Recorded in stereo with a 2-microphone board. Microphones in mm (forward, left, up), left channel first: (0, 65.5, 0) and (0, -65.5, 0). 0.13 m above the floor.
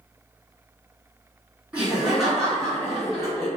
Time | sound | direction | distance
1.7 | laughter | 10° right (ahead or behind) | 1.8 m